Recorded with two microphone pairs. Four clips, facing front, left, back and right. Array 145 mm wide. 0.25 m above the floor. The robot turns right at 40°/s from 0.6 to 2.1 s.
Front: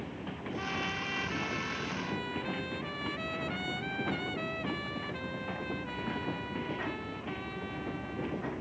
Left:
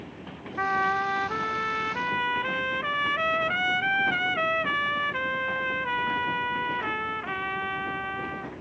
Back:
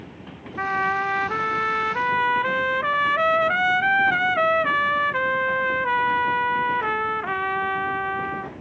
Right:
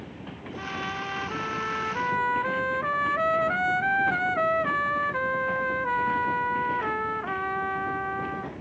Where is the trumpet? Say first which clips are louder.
Left 9 dB, back 16 dB; 135° left; by 8.5 s 165° right.